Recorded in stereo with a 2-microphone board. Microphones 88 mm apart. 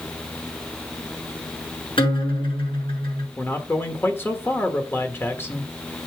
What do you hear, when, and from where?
2.0 s a guitar: 75° left (ahead or behind), 6 m
3.4 s a man speaking: 25° left (ahead or behind), 1.4 m